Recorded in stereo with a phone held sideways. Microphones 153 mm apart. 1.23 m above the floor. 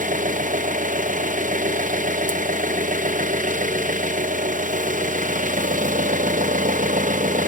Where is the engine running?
60° right (ahead or behind), 0.7 m.